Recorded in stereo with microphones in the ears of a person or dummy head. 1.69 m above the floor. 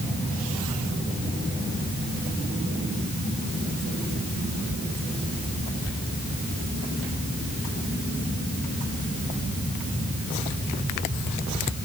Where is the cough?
No cough in this recording.